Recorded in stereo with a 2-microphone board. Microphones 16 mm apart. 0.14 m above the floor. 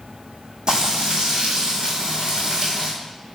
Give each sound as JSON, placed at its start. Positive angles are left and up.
{"t": 0.7, "sound": "frying", "side_deg": -35, "distance_m": 1.1}